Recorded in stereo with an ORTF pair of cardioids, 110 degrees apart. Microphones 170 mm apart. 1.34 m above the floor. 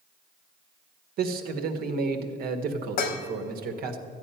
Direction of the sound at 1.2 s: 65° right.